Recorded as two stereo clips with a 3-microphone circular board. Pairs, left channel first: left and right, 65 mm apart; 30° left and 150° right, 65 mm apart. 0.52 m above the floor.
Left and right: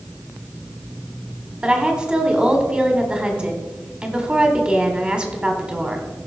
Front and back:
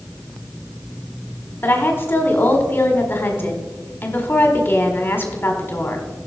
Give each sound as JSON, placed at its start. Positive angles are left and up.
{"t": 1.6, "sound": "a woman speaking", "azimuth_deg": -20, "distance_m": 1.6}